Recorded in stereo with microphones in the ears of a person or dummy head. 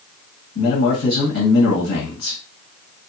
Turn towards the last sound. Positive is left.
turn(degrees=55)  # may be behind; listen again after turning